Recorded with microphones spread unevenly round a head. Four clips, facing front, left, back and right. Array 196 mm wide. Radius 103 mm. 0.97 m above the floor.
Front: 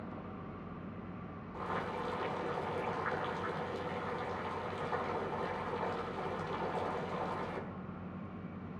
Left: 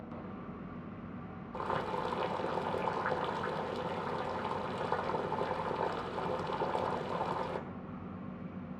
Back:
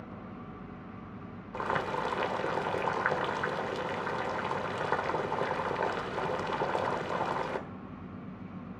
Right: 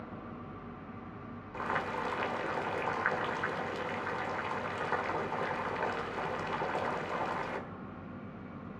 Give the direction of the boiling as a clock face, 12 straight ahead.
7 o'clock.